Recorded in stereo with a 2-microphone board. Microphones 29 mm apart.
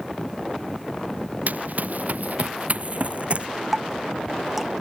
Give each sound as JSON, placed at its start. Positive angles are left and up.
{"t": 1.5, "sound": "running footsteps", "side_deg": -65}
{"t": 3.7, "sound": "dripping", "side_deg": -15}